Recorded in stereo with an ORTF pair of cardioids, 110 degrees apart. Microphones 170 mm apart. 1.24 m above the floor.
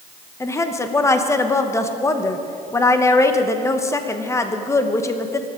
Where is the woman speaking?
15° left, 1.1 m.